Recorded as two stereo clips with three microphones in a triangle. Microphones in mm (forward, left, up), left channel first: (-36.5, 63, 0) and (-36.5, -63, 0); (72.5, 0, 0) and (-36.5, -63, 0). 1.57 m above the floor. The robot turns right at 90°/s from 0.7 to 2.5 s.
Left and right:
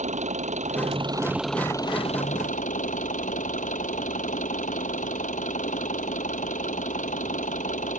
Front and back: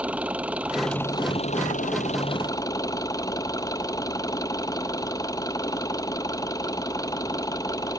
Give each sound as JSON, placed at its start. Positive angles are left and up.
{"t": 0.0, "sound": "an engine running", "azimuth_deg": -70}